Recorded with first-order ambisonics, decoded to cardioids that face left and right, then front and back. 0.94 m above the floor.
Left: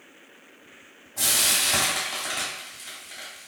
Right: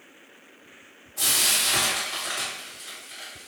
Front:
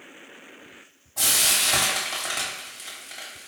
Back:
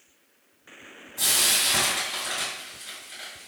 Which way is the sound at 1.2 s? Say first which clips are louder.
Even, front 1 dB; 10° left.